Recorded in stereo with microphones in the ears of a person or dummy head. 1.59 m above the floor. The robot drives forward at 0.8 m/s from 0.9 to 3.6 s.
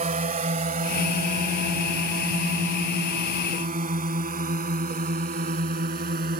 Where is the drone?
35° right (ahead or behind); by 6.4 s 40° right (ahead or behind).